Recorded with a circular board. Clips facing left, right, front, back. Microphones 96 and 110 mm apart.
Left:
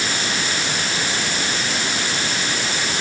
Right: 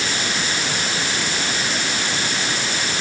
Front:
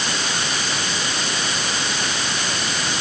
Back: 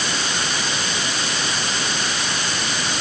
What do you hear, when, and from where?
Only background noise.